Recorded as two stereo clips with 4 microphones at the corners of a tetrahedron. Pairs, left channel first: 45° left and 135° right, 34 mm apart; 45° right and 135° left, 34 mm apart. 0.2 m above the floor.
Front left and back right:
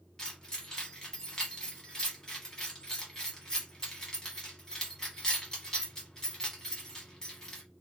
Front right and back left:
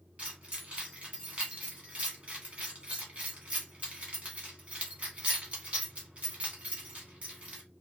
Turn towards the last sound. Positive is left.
turn(degrees=110)